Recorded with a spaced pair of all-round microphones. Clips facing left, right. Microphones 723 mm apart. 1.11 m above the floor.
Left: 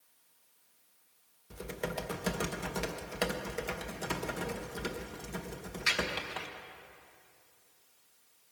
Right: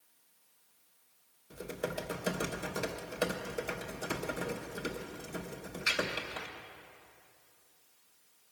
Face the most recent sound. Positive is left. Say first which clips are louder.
# even
turn(degrees=35)  # may be behind; listen again after turning